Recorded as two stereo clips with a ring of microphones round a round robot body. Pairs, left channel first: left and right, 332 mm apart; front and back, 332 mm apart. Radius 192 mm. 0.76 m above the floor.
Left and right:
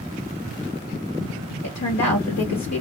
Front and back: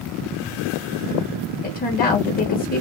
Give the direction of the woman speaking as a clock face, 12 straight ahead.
10 o'clock.